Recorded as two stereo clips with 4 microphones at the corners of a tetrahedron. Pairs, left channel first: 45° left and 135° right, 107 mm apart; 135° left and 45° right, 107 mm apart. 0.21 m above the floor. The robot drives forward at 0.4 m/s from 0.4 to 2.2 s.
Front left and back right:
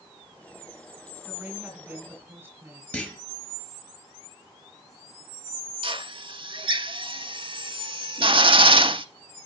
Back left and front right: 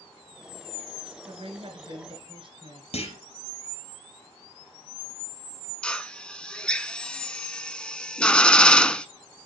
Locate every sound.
1.2 s a woman speaking: 55° right, 2.5 m; by 2.8 s 65° right, 2.5 m
2.9 s a clunk: 125° left, 4.5 m
5.8 s a drill: 150° right, 0.6 m